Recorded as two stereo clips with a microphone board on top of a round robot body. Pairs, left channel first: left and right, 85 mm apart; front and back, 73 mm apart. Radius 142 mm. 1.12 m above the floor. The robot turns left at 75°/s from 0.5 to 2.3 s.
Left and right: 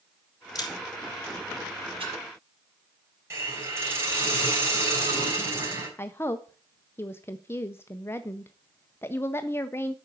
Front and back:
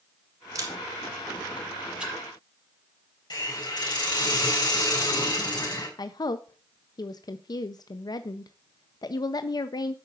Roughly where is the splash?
Right.